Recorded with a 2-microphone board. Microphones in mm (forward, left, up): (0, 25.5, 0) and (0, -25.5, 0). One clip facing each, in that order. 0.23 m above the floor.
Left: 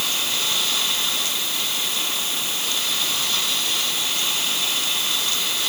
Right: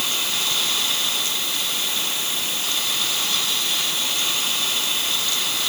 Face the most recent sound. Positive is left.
No sound to turn to.